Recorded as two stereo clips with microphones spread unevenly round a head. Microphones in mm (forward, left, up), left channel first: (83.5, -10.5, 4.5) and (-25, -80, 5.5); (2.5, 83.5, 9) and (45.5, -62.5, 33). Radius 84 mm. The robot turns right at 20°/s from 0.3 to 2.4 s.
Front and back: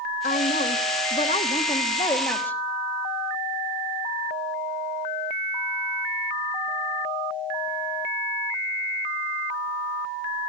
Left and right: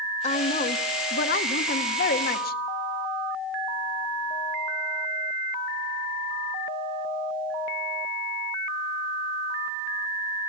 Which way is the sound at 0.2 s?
70° left.